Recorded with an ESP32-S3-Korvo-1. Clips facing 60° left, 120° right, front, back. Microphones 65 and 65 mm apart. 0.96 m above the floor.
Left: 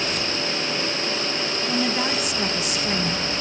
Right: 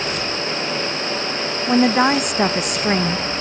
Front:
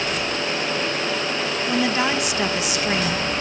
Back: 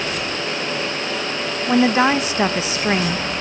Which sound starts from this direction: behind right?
A woman speaking, at 1.7 s.